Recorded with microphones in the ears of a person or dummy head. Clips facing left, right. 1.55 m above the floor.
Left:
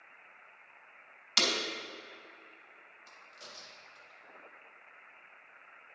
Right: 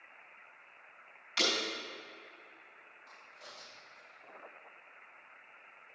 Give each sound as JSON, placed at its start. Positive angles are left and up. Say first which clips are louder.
{"t": 1.4, "sound": "breaking glass", "louder": "even", "side_deg": 70, "distance_m": 3.5}
{"t": 3.1, "sound": "a crack", "louder": "left 1 dB", "side_deg": 35, "distance_m": 2.5}